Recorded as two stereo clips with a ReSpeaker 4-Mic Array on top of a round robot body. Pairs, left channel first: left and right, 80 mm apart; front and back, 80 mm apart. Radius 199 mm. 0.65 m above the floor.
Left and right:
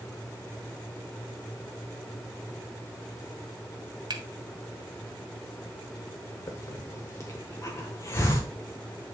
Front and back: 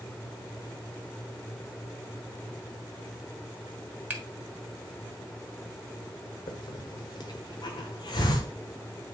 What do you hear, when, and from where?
4.1 s a finger snap: 110° right, 1.6 m
6.5 s a hiss: 30° left, 1.0 m